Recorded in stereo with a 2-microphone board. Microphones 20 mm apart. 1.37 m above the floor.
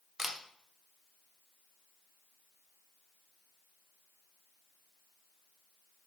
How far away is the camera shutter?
About 0.5 m.